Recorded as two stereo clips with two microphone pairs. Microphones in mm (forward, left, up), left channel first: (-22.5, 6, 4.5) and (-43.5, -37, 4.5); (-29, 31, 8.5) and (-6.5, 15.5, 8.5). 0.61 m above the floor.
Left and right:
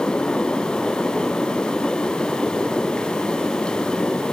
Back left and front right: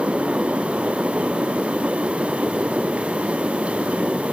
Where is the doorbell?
I don't hear a doorbell.